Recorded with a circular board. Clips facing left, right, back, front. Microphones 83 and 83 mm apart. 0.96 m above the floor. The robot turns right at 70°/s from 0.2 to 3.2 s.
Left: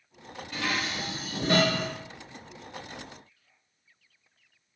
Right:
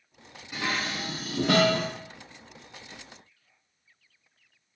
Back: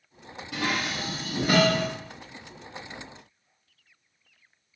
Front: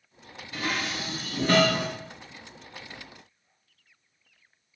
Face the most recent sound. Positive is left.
turn(degrees=20)